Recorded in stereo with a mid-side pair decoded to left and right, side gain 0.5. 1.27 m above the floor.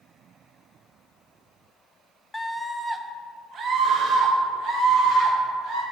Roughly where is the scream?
Ahead.